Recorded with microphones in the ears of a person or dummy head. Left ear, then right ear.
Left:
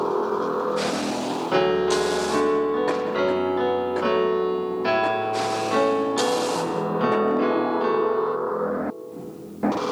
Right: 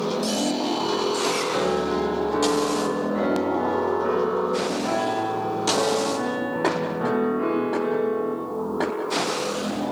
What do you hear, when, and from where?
1.5 s a piano: 80° left, 0.5 m